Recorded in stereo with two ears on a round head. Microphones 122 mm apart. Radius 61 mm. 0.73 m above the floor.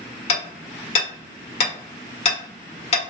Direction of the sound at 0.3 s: 50° left (ahead or behind).